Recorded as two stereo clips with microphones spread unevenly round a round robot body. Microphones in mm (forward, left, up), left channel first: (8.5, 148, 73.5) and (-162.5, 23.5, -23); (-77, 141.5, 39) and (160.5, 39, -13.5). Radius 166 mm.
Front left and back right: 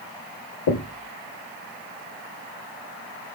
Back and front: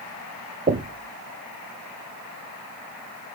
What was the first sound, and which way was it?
Knocking, 20° left.